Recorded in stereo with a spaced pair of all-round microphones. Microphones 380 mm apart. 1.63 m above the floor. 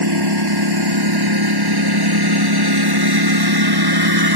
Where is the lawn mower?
85° right; by 4.4 s 75° right (ahead or behind).